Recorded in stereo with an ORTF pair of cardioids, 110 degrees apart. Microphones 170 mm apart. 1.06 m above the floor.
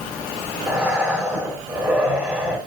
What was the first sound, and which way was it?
Breathing, 10° right.